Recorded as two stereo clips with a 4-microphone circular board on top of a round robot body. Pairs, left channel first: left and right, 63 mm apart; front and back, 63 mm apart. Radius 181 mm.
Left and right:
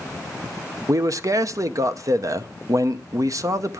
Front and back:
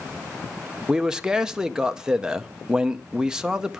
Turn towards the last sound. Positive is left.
turn(degrees=-105)